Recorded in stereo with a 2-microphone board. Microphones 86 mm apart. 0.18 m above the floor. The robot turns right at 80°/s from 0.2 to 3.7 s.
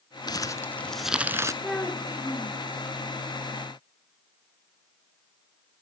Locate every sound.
0.3 s crumpling: 120° left, 0.7 m; by 1.5 s 140° right, 0.7 m
1.6 s a child speaking: straight ahead, 1.8 m; by 2.6 s 80° left, 1.8 m